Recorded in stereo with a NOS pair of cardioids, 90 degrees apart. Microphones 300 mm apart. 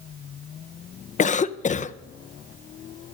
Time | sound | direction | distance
1.2 | a cough | 25° left | 0.6 m